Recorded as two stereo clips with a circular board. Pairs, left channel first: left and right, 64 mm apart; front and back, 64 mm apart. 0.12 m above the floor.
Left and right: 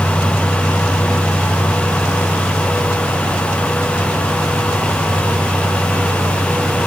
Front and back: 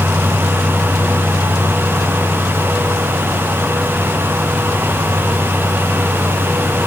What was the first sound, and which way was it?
Only background noise.